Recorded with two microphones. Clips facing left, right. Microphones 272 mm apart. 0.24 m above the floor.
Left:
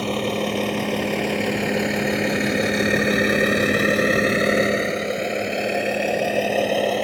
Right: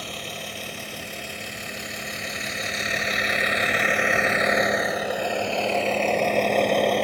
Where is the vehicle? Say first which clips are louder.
Left 15 dB; 70° left (ahead or behind); by 7.0 s 5° left (ahead or behind).